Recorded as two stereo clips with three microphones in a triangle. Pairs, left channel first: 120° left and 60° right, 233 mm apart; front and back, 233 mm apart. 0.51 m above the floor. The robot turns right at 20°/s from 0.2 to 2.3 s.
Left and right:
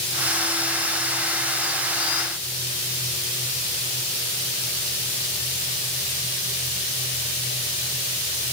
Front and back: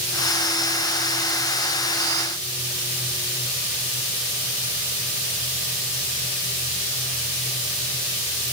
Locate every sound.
Only background noise.